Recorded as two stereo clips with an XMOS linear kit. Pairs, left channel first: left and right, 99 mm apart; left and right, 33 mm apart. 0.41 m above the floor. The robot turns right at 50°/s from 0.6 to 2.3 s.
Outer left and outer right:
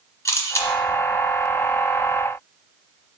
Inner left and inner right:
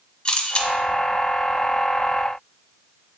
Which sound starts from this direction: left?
A camera shutter, at 0.2 s.